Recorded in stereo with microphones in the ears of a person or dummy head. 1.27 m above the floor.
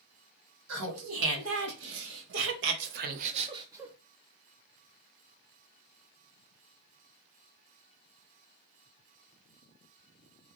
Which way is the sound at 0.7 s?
80° right.